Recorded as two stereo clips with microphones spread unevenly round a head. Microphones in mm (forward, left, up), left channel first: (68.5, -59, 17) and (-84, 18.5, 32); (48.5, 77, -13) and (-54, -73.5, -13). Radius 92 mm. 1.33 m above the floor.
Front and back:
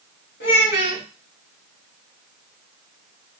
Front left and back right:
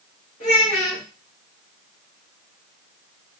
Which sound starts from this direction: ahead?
A child speaking, at 0.4 s.